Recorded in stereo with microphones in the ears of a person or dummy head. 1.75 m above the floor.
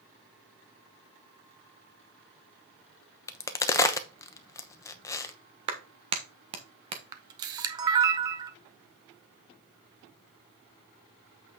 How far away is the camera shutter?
About 0.9 m.